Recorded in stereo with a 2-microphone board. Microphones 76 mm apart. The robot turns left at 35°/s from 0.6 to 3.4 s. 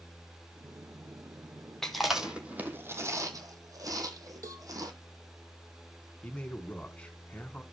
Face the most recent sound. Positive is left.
turn(degrees=15)  # may be behind; listen again after turning